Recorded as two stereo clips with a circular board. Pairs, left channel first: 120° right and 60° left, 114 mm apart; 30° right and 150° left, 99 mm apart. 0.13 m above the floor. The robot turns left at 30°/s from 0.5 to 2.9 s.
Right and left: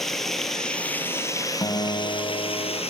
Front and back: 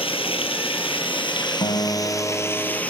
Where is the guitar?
65° right, 4 m; by 2.8 s 100° right, 4 m.